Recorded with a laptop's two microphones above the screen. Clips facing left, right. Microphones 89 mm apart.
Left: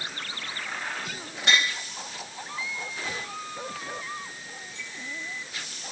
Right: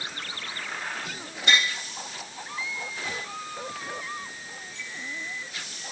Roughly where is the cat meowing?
I don't hear a cat meowing.